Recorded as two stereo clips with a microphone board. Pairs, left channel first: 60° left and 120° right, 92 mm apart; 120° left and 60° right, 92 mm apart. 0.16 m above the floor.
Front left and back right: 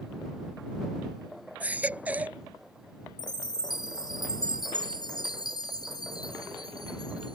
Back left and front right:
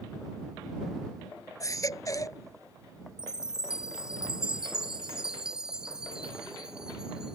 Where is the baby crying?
170° left.